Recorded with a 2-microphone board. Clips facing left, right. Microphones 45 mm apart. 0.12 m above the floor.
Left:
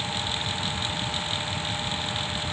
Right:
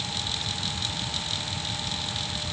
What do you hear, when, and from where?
Only background noise.